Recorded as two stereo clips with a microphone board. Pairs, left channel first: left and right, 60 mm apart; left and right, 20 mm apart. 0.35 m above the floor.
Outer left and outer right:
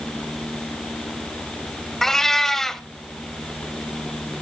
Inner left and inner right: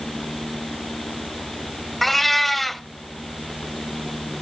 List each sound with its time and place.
2.0 s a cat meowing: 5° left (ahead or behind), 0.7 m